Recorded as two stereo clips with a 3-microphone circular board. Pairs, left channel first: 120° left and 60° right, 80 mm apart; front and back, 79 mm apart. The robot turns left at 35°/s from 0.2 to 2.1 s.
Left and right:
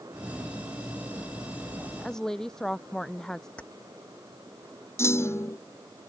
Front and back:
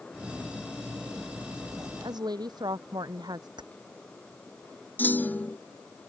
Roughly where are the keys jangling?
Behind.